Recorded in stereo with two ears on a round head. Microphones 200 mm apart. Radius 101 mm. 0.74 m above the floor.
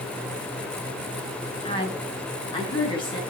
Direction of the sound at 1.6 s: 25° left (ahead or behind).